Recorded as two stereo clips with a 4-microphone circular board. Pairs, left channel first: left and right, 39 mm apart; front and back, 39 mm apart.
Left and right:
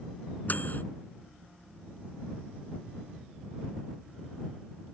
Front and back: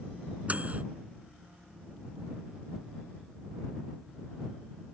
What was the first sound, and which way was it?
A microwave, 125° left.